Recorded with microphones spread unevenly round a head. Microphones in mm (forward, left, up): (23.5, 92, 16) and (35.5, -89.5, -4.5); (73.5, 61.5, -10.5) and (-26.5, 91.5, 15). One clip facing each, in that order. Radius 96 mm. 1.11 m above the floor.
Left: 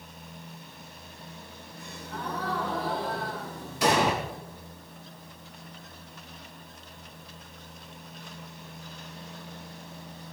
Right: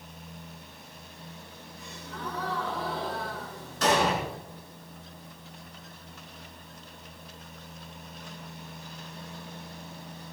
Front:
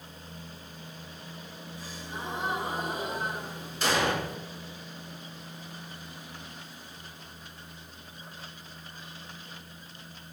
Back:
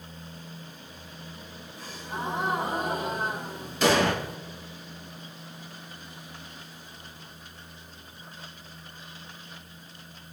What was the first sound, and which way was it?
A gasp, 140° left.